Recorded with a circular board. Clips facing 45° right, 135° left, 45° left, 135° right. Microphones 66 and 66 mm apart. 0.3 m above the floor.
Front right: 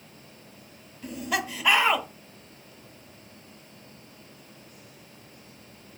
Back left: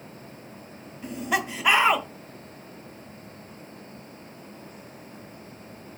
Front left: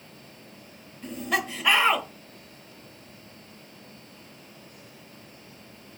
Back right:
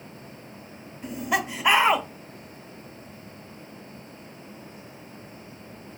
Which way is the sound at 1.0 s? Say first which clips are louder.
Back left 2 dB, back right 1 dB; 170° left.